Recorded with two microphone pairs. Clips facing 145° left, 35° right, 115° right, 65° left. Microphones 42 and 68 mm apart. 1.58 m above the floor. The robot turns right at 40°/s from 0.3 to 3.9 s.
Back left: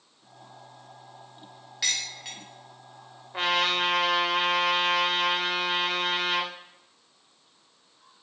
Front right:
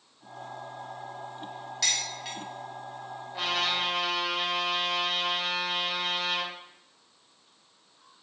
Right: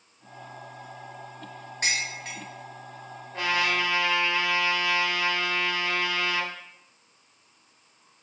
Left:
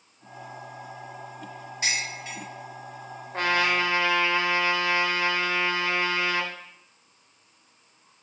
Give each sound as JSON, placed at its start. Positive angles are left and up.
{"t": 1.8, "sound": "dishes clattering", "azimuth_deg": -140, "distance_m": 1.3}
{"t": 3.3, "sound": "a trumpet", "azimuth_deg": 100, "distance_m": 0.7}